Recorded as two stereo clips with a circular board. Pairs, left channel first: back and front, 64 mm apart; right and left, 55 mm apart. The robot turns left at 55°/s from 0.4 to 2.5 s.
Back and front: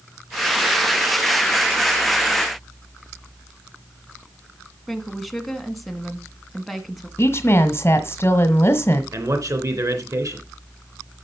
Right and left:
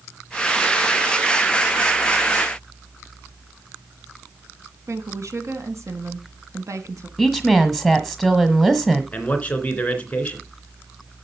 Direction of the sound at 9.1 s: 25° right.